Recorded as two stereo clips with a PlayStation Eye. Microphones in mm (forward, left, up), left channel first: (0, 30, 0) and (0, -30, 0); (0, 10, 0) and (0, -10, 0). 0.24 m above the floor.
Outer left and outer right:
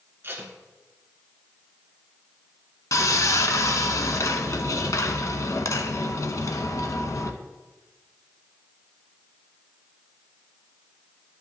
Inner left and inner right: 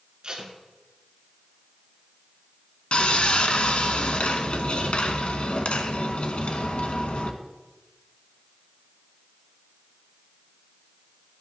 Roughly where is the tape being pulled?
Right.